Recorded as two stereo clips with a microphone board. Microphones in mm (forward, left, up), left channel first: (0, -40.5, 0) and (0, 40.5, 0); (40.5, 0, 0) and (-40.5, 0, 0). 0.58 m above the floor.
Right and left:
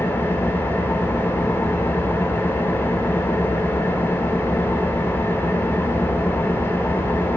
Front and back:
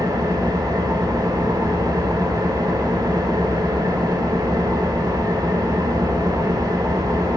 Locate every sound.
0.0 s an engine running: 150° right, 1.1 m